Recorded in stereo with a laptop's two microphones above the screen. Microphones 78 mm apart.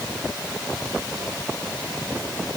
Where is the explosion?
No explosion in this recording.